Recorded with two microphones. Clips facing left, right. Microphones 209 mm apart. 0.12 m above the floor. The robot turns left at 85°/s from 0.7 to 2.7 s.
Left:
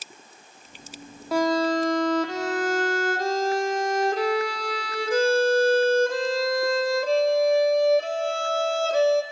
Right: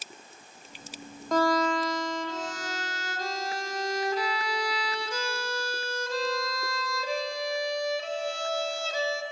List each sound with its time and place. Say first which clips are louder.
1.3 s a violin: left 3 dB; 175° left, 1.1 m; by 9.2 s 55° left, 1.1 m